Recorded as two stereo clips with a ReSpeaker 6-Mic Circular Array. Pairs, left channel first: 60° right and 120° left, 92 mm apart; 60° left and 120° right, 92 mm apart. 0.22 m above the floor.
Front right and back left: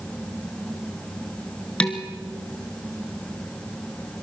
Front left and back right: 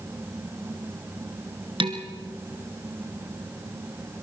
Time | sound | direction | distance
1.8 | dishes clattering | 140° right | 2.5 m